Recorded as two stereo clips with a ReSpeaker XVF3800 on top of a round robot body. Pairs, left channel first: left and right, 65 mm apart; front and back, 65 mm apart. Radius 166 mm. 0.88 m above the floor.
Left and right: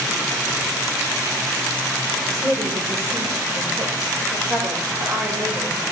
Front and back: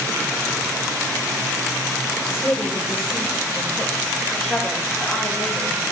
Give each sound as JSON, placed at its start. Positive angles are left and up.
{"t": 2.3, "sound": "a woman speaking", "azimuth_deg": -50, "distance_m": 4.0}